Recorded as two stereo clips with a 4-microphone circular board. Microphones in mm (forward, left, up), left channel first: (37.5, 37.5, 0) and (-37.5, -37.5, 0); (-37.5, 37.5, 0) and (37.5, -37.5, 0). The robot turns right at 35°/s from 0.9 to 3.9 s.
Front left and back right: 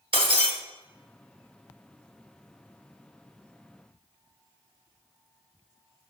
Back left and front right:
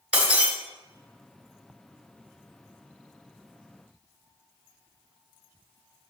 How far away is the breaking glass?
About 1.5 m.